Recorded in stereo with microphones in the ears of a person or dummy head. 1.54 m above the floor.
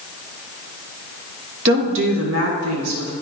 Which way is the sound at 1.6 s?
65° right (ahead or behind).